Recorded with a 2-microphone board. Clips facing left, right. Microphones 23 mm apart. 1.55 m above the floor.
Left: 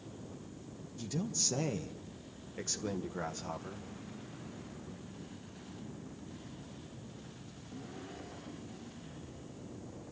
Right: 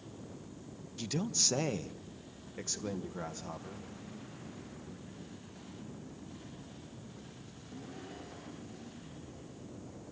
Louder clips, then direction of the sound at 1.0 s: Right 3 dB; 45° right (ahead or behind).